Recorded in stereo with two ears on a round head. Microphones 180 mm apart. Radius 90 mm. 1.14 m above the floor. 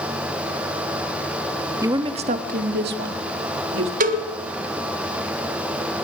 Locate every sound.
1.8 s a woman speaking: 15° right (ahead or behind), 1.3 m; by 3.9 s 70° right (ahead or behind), 3 m
4.0 s a cowbell: 40° right (ahead or behind), 1.5 m